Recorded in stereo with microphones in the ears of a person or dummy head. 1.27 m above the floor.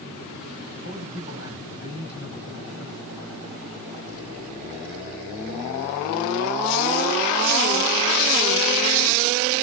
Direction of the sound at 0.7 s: 80° left.